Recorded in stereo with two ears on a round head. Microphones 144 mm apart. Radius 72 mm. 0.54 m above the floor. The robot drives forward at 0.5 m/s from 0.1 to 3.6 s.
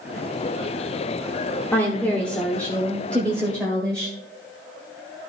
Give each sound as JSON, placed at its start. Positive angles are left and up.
{"t": 1.7, "sound": "a woman speaking", "side_deg": 10, "distance_m": 1.2}